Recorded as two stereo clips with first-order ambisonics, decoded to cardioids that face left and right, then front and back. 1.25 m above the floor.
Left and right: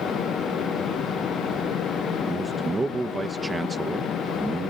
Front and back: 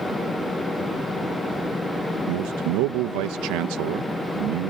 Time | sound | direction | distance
2.3 | a man speaking | 170° right | ?